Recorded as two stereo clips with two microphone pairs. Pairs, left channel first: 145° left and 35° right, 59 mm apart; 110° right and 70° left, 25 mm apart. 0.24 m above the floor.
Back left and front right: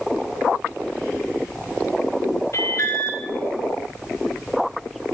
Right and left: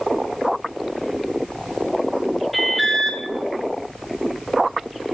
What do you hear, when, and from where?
2.5 s an alarm: 160° left, 3.5 m